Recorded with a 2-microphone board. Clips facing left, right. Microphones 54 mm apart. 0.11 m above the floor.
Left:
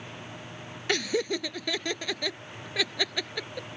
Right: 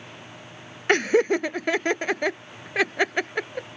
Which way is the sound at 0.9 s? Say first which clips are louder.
Right 9 dB; 45° right (ahead or behind).